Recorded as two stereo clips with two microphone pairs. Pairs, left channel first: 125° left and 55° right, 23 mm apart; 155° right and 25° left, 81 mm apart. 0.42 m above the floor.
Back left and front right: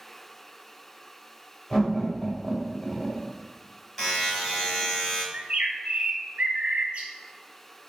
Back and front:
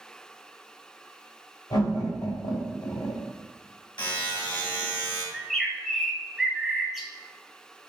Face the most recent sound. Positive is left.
turn(degrees=-60)